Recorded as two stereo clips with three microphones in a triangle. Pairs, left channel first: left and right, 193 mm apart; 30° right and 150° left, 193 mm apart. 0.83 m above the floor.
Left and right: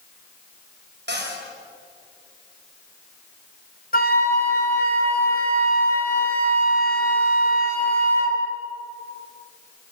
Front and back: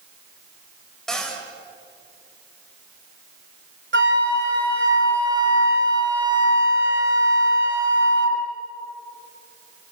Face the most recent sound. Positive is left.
turn(degrees=130)